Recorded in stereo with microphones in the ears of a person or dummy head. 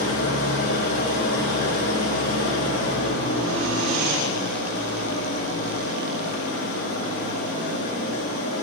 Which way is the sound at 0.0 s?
80° left.